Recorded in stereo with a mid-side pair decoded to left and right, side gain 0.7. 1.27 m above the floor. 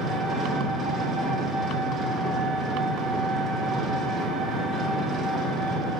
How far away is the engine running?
About 1.1 m.